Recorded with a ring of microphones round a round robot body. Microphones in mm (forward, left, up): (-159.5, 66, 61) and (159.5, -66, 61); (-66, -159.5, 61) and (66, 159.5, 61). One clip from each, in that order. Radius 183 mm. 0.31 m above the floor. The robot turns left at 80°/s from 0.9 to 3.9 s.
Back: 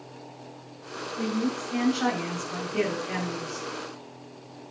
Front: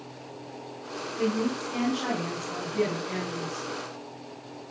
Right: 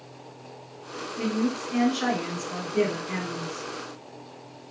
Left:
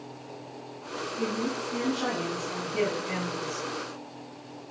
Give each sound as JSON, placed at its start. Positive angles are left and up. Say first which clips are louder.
{"t": 1.2, "sound": "a woman speaking", "louder": "front 2 dB, right 3 dB", "azimuth_deg": -95, "distance_m": 4.5}